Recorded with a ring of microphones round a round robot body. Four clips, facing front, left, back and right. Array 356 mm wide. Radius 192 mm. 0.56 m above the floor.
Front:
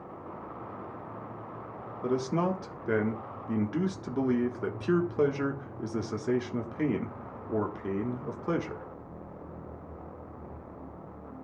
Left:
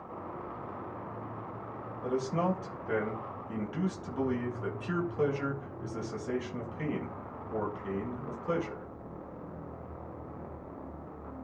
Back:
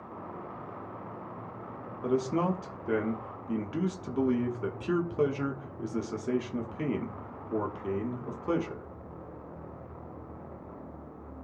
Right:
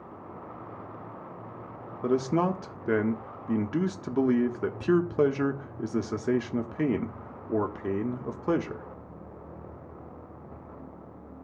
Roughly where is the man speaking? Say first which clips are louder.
Right 5 dB, even; right.